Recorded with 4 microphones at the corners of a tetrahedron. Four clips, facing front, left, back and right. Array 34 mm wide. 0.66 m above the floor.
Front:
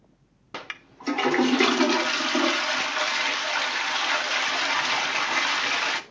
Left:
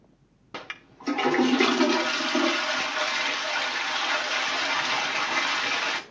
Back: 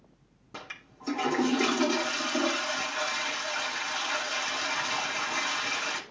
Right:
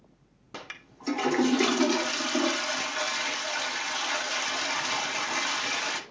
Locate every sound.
0.5 s a toilet flushing: 20° left, 0.7 m